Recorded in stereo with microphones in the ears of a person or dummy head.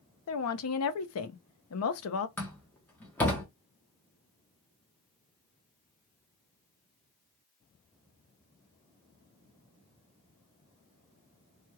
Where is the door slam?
10° left (ahead or behind), 1.0 m.